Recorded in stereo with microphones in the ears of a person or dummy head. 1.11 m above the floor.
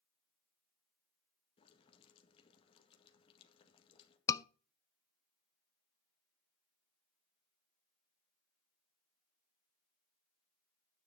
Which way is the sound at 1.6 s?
30° left (ahead or behind).